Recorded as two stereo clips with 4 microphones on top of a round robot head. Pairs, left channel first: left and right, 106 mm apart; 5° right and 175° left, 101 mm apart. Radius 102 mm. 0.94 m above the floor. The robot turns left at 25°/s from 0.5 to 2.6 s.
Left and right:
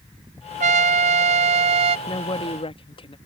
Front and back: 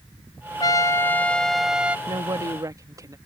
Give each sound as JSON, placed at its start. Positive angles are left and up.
{"t": 0.6, "sound": "a trumpet", "azimuth_deg": -70}
{"t": 2.1, "sound": "a woman speaking", "azimuth_deg": 135}